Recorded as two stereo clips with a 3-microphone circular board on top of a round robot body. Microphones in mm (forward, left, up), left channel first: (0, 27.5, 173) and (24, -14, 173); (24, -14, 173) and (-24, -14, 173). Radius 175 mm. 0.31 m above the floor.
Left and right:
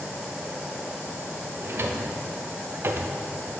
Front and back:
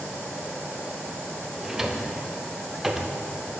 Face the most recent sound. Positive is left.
turn(degrees=-100)